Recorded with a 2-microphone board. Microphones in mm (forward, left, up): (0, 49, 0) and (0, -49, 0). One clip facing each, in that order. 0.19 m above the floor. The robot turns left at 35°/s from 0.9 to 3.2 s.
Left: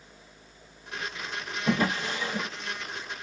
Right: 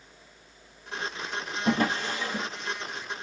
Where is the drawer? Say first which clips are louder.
Right 1 dB; 55° right (ahead or behind), 1.8 m; by 2.5 s 25° right (ahead or behind), 1.8 m.